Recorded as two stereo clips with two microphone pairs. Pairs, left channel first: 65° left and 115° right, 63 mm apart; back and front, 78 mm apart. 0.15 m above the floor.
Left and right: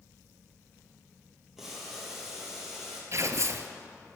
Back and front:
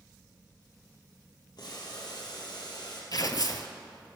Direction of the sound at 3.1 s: 155° right.